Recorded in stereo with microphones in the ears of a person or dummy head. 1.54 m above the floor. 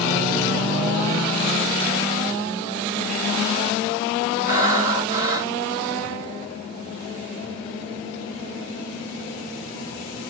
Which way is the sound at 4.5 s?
40° right (ahead or behind).